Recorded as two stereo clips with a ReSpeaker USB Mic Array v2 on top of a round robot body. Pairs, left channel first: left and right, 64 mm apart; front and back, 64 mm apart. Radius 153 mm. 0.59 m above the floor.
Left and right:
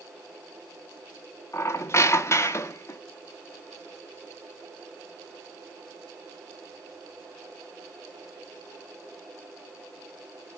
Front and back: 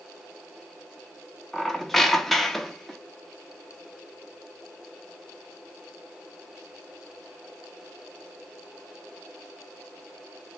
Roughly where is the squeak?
Left.